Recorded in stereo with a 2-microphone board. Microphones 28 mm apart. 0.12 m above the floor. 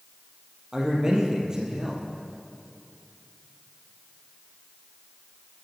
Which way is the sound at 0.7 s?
20° right (ahead or behind).